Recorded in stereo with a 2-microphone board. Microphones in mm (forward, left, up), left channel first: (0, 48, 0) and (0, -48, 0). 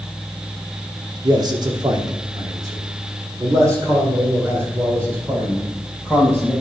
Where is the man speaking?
45° right (ahead or behind), 1.2 m; by 6.5 s 20° right (ahead or behind), 3 m.